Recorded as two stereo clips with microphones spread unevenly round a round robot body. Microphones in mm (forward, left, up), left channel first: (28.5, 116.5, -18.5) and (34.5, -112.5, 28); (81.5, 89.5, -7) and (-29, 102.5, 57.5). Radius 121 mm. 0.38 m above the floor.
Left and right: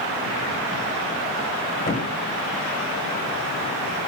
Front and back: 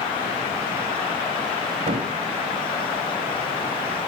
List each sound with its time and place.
1.9 s a thud: 150° left, 6 m